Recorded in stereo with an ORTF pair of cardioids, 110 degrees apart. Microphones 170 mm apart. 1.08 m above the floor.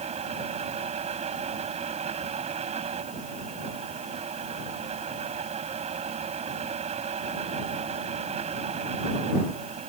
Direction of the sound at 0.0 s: 40° right.